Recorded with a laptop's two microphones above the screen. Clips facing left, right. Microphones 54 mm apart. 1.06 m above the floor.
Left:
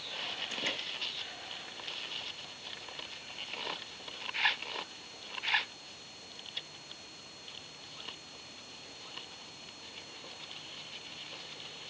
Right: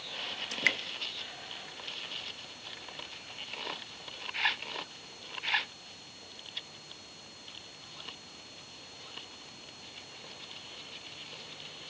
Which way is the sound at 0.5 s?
70° right (ahead or behind).